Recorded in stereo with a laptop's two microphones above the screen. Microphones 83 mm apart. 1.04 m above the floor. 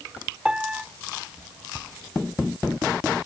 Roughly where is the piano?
Centre.